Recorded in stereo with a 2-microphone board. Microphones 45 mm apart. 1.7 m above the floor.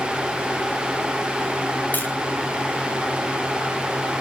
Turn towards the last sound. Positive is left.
turn(degrees=40)  # may be behind; listen again after turning